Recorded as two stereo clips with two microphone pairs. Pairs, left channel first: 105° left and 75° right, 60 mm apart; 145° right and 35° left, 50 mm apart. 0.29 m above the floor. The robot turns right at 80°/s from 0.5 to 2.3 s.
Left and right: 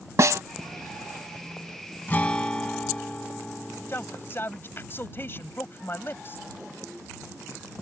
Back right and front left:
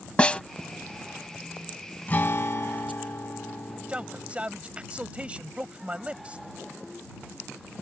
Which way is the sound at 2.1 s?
160° left.